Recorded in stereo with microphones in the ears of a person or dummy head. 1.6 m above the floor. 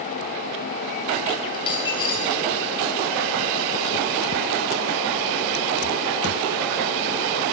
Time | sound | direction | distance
1.5 | a dropped coin | 20° left (ahead or behind) | 4 m